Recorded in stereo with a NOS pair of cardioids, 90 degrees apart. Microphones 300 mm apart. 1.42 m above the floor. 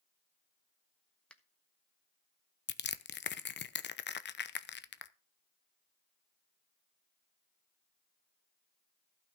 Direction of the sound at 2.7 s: 35° left.